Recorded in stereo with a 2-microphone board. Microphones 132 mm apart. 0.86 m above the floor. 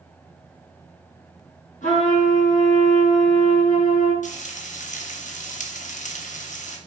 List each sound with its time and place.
1.8 s a trumpet: 80° left, 4 m
4.2 s frying: 70° left (ahead or behind), 1.0 m